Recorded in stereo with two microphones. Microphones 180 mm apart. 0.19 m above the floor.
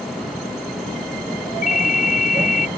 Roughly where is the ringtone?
Left.